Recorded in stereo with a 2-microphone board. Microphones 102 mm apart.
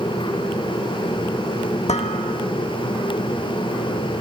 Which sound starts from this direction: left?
Dishes clattering, at 1.9 s.